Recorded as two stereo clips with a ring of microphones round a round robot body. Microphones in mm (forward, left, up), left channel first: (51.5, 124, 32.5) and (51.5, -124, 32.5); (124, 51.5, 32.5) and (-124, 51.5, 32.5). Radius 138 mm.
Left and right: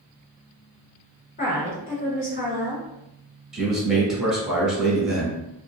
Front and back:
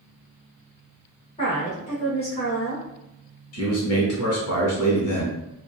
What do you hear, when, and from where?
1.4 s a woman speaking: 55° left, 1.2 m
3.5 s a man speaking: straight ahead, 1.5 m